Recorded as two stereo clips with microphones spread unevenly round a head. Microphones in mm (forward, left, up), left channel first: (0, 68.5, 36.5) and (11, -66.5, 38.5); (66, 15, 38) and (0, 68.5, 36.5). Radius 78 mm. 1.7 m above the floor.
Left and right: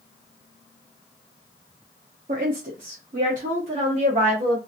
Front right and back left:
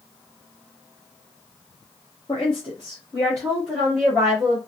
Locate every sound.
2.3 s a woman speaking: 70° right, 0.8 m; by 4.6 s 135° right, 1.7 m